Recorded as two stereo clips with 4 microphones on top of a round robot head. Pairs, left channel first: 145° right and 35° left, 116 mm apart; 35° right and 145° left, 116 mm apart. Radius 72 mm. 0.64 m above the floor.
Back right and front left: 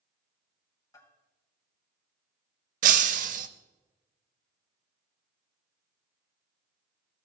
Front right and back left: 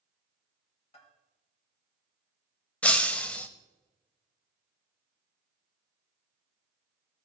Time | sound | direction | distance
0.9 | a bell | 80° right | 3 m
2.8 | breaking glass | 40° left | 0.5 m